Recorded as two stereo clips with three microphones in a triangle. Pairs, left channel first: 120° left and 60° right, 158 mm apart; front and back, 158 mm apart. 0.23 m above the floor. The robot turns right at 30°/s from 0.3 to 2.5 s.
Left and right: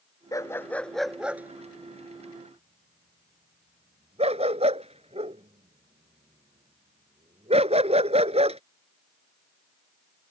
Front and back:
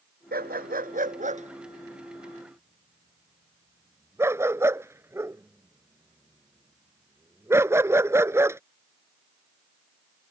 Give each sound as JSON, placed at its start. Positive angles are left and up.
{"t": 0.3, "sound": "a dog barking", "azimuth_deg": -170}